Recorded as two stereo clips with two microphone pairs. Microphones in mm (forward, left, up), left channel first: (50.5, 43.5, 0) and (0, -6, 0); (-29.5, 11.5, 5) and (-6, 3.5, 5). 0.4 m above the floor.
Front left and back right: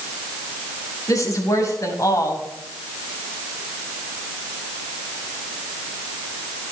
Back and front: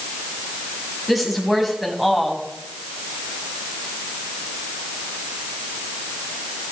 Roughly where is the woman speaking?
Left.